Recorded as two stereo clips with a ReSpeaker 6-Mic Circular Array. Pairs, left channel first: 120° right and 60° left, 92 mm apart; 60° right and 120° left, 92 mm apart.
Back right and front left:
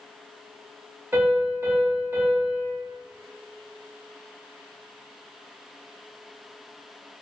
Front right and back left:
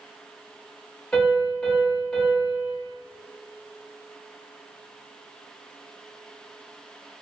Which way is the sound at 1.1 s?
15° left.